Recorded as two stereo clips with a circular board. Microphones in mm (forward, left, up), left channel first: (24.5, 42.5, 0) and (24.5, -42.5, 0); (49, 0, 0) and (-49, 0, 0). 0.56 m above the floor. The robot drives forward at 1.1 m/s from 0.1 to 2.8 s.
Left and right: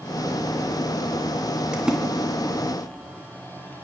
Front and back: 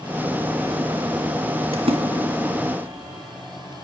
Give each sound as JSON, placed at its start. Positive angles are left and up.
{"t": 1.7, "sound": "a splash", "azimuth_deg": -170, "distance_m": 2.5}